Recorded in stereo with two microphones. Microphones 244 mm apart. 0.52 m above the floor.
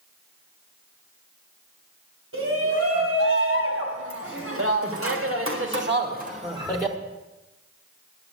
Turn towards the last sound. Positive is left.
turn(degrees=-10)  # may be behind; listen again after turning